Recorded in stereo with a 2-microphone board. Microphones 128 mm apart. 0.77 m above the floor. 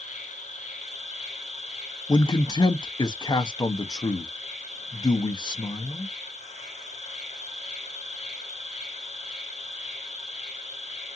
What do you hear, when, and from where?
0.0 s an insect: 70° left (ahead or behind), 3 m
2.1 s a man speaking: 30° left (ahead or behind), 0.8 m